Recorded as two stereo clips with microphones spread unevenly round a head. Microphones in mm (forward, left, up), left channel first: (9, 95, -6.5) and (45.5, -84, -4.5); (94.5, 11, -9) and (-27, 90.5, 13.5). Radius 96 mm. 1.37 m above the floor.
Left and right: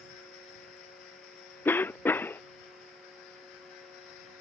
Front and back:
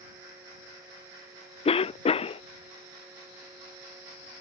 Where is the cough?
20° left.